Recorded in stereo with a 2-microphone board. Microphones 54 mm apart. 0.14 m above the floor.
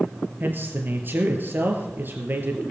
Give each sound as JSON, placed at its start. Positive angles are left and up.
{"t": 0.4, "sound": "a man speaking", "side_deg": -40, "distance_m": 3.5}